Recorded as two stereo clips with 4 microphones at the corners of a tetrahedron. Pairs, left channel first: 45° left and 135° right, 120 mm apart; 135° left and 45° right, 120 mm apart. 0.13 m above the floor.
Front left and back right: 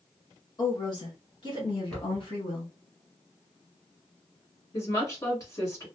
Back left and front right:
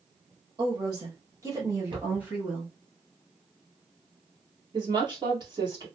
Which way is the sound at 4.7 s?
10° right.